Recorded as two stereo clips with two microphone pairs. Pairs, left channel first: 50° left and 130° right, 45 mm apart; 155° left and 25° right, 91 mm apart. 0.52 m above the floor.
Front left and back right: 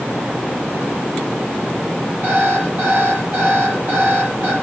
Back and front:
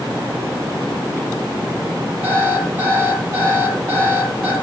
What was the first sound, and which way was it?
An alarm clock, 90° right.